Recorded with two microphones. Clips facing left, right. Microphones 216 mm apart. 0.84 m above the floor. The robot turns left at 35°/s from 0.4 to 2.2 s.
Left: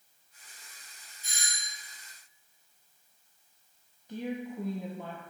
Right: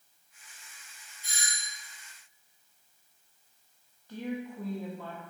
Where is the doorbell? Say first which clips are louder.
Right 2 dB; 45° left (ahead or behind), 2.5 m; by 1.7 s 30° left (ahead or behind), 2.5 m.